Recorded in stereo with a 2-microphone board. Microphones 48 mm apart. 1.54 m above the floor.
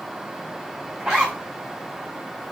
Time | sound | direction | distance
1.0 | a zipper | 15° right (ahead or behind) | 2.5 m